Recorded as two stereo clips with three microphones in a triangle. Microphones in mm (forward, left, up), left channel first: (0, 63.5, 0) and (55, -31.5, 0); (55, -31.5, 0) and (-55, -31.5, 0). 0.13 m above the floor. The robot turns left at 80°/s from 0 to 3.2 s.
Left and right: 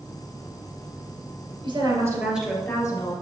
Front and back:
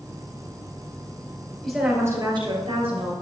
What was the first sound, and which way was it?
A woman speaking, 80° right.